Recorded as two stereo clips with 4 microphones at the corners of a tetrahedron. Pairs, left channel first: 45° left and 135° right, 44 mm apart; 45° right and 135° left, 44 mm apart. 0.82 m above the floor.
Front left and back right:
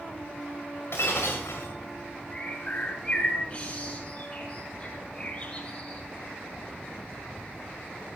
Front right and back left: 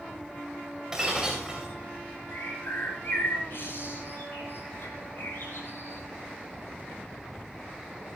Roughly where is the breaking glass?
Ahead left.